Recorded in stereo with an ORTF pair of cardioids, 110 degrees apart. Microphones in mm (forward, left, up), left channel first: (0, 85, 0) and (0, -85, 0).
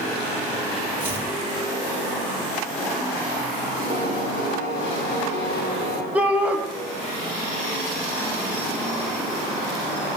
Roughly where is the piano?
Ahead left.